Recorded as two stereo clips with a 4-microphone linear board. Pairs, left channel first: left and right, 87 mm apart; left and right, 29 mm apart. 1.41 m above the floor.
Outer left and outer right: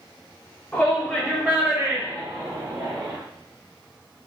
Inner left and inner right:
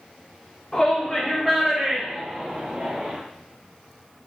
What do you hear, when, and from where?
0.7 s a shout: 15° left (ahead or behind), 1.0 m; by 3.2 s 65° right (ahead or behind), 1.7 m